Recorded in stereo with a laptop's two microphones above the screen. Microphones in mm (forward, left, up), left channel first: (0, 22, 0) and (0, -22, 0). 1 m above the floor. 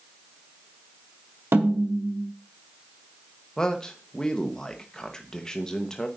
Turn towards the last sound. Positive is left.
turn(degrees=15)  # may be behind; listen again after turning